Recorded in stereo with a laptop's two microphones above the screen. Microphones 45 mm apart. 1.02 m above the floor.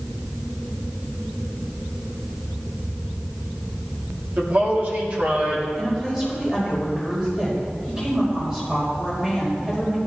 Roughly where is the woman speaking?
Right.